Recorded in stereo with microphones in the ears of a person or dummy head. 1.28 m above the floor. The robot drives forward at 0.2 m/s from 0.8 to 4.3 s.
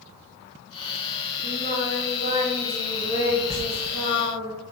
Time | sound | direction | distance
1.4 | singing | 45° right (ahead or behind) | 1.0 m
3.5 | a sliding door | 20° right (ahead or behind) | 0.9 m